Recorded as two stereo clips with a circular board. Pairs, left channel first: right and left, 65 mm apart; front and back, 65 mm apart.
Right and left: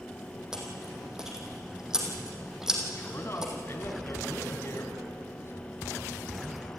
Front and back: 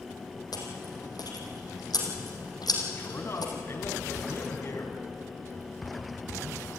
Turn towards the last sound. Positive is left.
turn(degrees=-45)